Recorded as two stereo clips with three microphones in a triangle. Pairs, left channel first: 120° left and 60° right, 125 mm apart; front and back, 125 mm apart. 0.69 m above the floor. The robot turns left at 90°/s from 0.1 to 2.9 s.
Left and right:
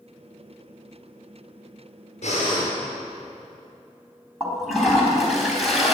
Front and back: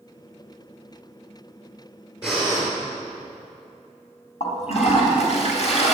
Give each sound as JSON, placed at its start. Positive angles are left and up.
{"t": 2.2, "sound": "breathing", "azimuth_deg": 95, "distance_m": 4.5}
{"t": 4.4, "sound": "a toilet flushing", "azimuth_deg": 30, "distance_m": 3.5}